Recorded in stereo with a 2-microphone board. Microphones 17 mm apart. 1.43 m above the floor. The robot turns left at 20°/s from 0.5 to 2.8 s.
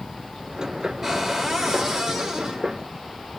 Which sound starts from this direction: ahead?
A cupboard door, at 1.0 s.